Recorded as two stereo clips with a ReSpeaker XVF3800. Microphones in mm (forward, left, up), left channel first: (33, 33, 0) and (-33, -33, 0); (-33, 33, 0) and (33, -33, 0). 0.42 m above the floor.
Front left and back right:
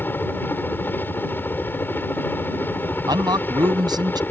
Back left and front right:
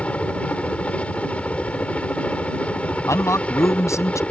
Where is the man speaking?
170° right.